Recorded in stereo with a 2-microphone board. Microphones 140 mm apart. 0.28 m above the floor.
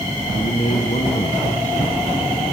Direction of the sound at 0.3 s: 55° left (ahead or behind).